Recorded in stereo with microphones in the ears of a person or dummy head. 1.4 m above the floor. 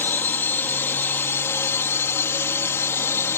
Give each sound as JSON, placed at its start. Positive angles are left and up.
{"t": 0.0, "sound": "a drone", "side_deg": 15}